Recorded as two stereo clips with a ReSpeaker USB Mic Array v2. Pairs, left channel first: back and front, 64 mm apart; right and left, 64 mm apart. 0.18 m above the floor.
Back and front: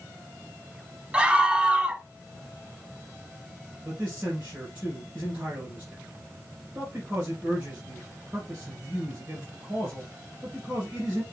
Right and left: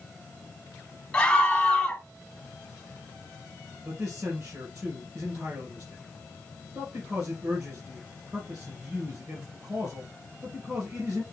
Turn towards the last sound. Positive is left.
turn(degrees=65)